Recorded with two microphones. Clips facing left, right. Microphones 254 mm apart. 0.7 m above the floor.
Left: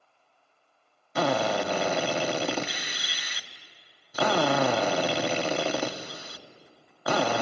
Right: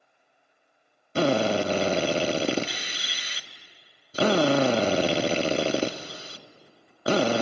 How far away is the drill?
About 0.8 m.